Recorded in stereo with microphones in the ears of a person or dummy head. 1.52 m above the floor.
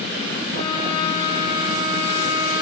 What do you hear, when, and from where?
0.5 s a violin: 75° left (ahead or behind), 1.4 m